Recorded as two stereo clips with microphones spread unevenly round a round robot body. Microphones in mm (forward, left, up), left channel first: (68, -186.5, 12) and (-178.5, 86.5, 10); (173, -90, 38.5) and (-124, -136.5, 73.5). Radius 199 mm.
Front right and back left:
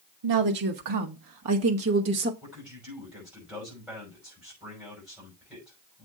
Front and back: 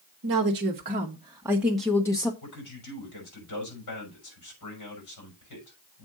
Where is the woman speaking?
145° left, 1.3 m; by 2.3 s 75° left, 1.2 m.